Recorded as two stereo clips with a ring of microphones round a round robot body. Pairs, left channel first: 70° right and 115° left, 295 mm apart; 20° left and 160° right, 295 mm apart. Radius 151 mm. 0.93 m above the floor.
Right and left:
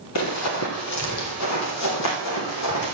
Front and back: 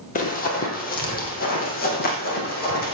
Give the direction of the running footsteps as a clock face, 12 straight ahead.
1 o'clock.